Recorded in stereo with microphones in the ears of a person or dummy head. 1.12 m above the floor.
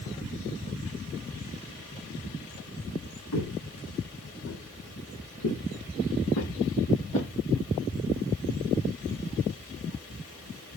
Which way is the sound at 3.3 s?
65° left (ahead or behind).